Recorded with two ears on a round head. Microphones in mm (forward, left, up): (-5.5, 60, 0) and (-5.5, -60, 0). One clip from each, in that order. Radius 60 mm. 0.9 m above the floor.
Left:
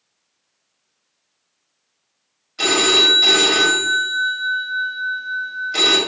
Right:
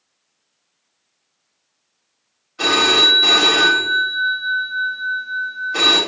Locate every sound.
2.6 s a phone ringing: 75° left (ahead or behind), 1.5 m